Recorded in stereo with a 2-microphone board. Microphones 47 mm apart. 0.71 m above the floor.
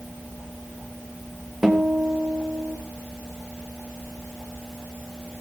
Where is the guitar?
10° right (ahead or behind), 2.5 m.